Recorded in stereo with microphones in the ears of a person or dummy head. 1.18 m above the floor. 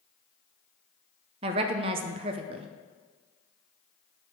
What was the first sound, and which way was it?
A woman speaking, 30° right (ahead or behind).